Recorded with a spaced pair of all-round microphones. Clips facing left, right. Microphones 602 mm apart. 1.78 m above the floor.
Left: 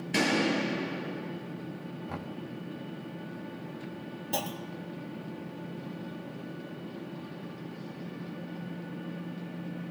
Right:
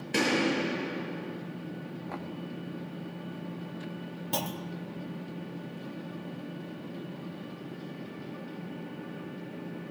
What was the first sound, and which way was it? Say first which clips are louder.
A gunshot: even; 10° left (ahead or behind).